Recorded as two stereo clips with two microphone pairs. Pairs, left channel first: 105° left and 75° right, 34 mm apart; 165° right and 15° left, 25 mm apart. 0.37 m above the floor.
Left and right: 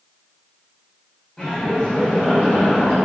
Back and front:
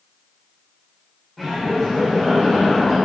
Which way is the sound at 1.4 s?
115° left.